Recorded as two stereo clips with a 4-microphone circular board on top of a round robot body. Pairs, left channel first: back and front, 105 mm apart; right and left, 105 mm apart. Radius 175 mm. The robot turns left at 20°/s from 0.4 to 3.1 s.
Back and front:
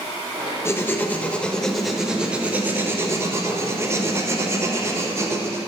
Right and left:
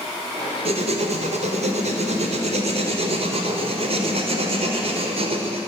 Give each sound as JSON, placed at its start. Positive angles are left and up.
{"t": 0.7, "sound": "writing", "azimuth_deg": 115, "distance_m": 1.2}